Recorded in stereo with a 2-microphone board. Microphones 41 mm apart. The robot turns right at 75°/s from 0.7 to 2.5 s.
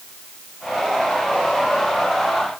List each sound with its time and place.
Only background noise.